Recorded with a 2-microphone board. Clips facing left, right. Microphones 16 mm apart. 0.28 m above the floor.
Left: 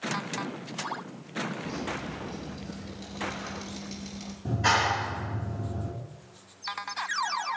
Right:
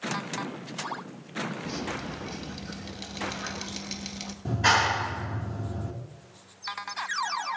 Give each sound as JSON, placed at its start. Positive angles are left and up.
{"t": 1.6, "sound": "dripping", "side_deg": -35, "distance_m": 1.6}
{"t": 4.5, "sound": "a clap", "side_deg": -20, "distance_m": 3.0}